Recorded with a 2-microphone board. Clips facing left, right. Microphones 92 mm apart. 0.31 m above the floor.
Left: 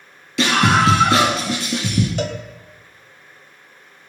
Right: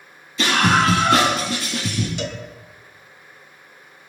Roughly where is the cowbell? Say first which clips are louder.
Left 4 dB; left.